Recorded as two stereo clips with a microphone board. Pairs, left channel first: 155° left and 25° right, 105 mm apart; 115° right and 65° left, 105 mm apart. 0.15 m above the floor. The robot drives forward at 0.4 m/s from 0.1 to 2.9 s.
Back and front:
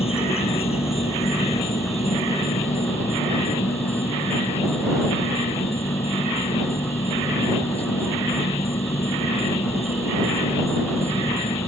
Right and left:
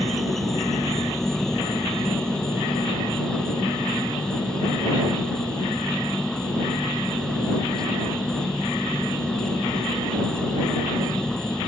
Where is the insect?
160° left; by 11.7 s 165° left.